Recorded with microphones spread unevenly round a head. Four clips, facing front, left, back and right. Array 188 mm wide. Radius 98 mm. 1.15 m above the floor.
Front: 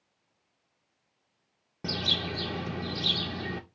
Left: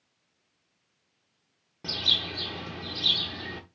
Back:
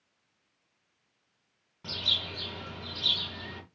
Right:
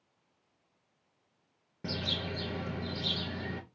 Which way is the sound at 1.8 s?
15° right.